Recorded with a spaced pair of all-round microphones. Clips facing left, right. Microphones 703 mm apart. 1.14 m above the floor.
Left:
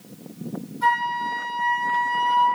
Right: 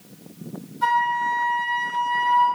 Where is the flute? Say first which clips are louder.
Right 1 dB; 65° right (ahead or behind), 1.3 m.